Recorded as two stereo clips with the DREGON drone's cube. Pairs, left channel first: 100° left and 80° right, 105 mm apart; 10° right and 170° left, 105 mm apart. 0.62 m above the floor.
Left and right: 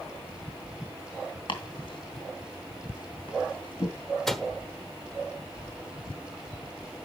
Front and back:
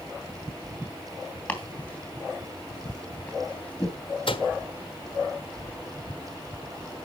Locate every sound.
1.5 s chopping: 65° left, 3 m
4.3 s a microwave: 15° left, 1.2 m